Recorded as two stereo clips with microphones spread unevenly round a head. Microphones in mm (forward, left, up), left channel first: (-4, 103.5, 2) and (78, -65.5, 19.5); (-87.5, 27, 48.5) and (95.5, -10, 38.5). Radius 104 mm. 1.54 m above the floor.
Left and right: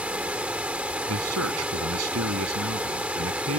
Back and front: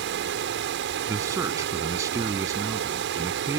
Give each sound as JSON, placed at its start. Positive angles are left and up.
{"t": 0.0, "sound": "running water", "azimuth_deg": 20}
{"t": 1.1, "sound": "a man speaking", "azimuth_deg": -90}